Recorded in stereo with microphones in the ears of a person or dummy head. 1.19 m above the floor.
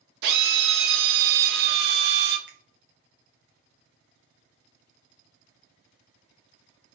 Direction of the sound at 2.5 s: 10° right (ahead or behind).